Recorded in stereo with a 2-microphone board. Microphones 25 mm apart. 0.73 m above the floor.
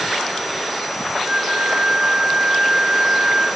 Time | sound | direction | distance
1.2 | a flute | 40° right (ahead or behind) | 5.5 m